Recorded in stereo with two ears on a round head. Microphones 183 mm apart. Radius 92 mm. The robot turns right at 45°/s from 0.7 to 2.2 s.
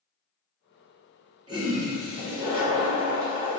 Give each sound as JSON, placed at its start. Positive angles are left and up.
{"t": 1.5, "sound": "a toilet flushing", "azimuth_deg": -150, "distance_m": 1.3}